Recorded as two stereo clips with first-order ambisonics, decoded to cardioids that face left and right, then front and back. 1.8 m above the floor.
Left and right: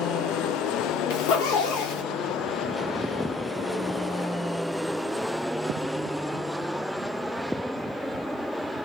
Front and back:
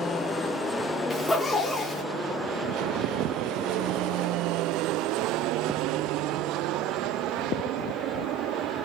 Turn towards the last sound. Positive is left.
turn(degrees=80)